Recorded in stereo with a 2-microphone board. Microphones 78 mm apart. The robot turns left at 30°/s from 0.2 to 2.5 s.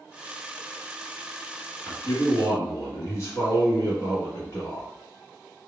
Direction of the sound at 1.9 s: 45° left (ahead or behind).